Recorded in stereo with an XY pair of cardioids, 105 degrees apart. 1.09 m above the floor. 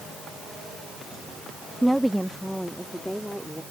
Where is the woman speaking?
5° right; by 3.6 s straight ahead.